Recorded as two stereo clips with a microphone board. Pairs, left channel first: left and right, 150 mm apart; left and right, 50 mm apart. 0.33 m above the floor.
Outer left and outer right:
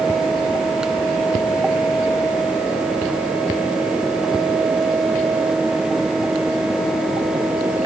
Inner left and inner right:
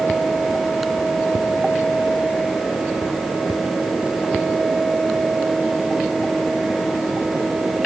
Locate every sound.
Only background noise.